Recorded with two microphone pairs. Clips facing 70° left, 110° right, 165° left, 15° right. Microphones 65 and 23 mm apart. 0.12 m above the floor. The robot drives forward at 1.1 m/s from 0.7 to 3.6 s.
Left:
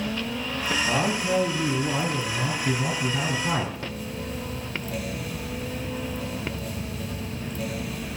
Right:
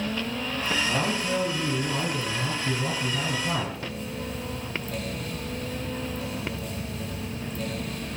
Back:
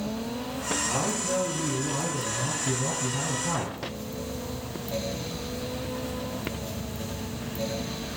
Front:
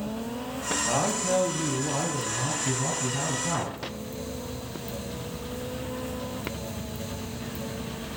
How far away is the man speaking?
About 3.5 m.